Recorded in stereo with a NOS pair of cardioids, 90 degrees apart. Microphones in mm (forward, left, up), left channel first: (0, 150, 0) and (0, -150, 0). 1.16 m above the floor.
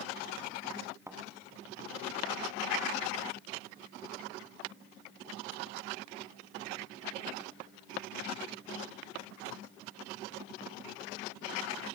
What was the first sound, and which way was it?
A thud, 10° right.